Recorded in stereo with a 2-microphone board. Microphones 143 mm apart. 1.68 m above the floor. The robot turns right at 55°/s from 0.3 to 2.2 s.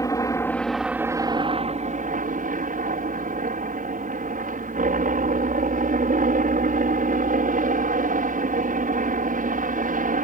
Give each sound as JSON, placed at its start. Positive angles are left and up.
{"t": 0.0, "sound": "a helicopter", "azimuth_deg": 155}